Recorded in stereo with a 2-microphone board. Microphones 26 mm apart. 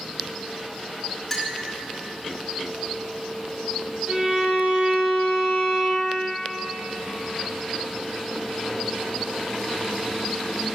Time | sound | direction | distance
1.3 | a clink | 15° left (ahead or behind) | 0.8 m
4.1 | a violin | 40° right (ahead or behind) | 1.9 m